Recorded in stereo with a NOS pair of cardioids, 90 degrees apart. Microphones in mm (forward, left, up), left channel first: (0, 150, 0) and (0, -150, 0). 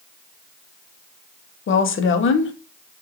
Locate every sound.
1.7 s a woman speaking: 45° left, 0.7 m